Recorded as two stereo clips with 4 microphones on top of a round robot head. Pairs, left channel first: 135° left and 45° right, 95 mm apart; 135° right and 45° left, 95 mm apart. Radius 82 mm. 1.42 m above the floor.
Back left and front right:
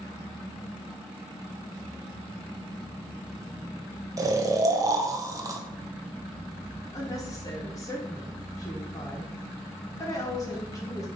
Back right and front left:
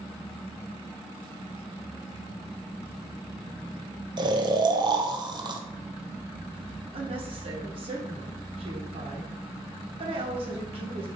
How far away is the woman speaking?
About 1.1 m.